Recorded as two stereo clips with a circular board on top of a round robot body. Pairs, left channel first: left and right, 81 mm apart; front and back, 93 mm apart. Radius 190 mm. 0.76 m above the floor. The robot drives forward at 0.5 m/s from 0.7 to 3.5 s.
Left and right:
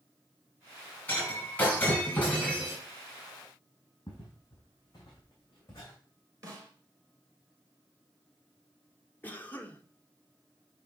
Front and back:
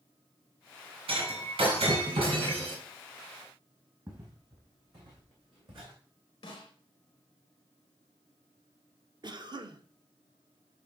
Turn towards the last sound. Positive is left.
turn(degrees=155)